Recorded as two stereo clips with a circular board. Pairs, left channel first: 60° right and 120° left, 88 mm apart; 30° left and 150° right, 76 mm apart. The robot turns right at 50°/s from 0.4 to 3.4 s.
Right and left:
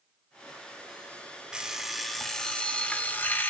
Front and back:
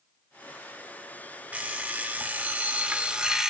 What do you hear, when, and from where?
1.5 s an alarm clock: 175° right, 0.6 m; by 3.5 s 85° right, 0.6 m